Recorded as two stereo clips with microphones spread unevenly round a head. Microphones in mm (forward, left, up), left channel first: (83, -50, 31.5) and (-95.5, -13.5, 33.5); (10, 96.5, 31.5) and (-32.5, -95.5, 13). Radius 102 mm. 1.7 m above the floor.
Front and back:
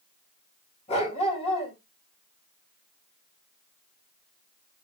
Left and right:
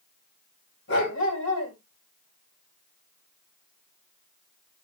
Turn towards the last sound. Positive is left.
turn(degrees=50)